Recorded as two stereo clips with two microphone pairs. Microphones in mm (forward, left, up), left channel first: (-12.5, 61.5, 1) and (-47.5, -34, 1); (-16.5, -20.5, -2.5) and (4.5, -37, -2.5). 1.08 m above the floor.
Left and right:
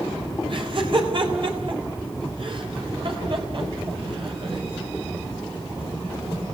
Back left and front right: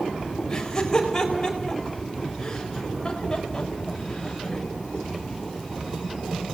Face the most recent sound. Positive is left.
turn(degrees=-145)